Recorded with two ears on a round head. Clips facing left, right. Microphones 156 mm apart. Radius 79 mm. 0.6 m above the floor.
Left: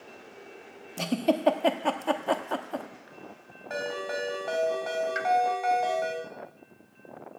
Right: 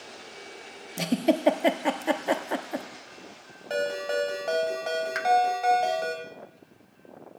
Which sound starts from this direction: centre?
A giggle, at 1.0 s.